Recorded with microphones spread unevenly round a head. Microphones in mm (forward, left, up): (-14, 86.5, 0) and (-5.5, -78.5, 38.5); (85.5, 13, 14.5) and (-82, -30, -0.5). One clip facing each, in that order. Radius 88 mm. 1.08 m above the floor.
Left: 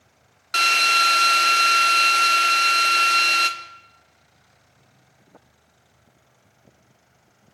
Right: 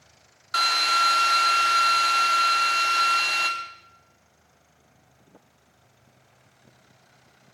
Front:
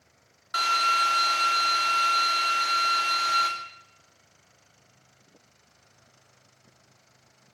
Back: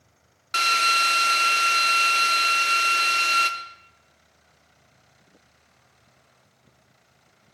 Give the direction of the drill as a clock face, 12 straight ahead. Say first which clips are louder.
Left 2 dB, back 1 dB; 7 o'clock.